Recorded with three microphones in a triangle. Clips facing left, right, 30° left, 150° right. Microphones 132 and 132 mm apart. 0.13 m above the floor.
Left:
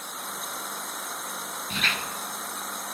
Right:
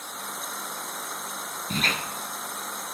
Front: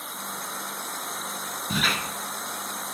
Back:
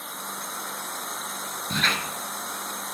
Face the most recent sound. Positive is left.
turn(degrees=-50)